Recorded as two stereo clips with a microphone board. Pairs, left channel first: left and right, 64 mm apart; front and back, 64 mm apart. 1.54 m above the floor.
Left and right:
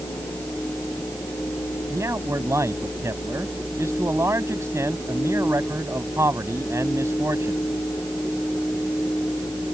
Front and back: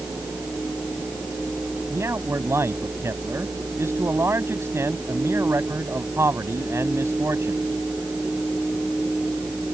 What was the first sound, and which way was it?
A man speaking, 135° right.